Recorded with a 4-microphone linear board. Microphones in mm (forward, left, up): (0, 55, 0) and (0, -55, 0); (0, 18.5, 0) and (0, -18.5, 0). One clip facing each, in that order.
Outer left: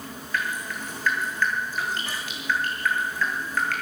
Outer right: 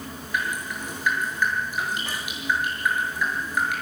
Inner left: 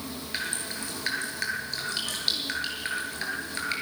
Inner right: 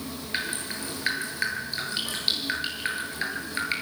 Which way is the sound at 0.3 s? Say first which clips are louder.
Outer right 1 dB, inner right 2 dB; 15° right (ahead or behind).